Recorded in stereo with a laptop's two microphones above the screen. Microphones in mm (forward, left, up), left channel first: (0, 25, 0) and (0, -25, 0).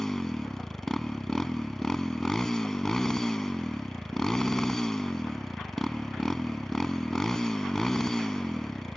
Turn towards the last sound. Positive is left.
turn(degrees=10)  # may be behind; listen again after turning